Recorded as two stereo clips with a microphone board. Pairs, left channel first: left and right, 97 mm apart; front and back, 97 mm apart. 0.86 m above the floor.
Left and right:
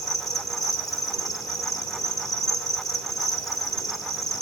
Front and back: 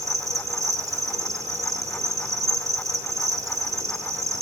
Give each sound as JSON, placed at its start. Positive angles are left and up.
{"t": 0.0, "sound": "an insect", "azimuth_deg": 130, "distance_m": 0.8}